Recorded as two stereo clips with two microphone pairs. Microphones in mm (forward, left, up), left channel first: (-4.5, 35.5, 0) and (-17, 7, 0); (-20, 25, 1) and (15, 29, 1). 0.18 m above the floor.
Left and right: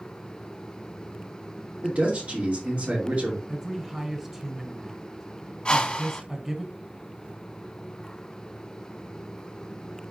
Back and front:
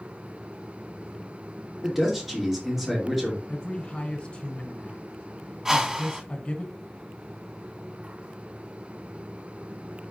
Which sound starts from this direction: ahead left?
A whoosh, at 5.7 s.